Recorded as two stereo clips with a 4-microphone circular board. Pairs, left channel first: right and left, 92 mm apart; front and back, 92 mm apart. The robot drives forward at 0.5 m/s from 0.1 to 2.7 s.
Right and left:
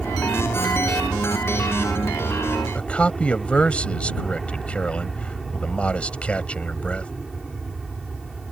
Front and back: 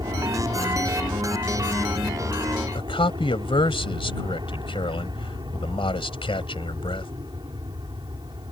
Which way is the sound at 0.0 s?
Straight behind.